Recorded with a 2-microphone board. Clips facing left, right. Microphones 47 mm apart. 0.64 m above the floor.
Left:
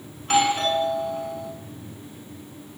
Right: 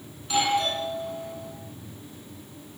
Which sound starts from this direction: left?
A doorbell, at 0.2 s.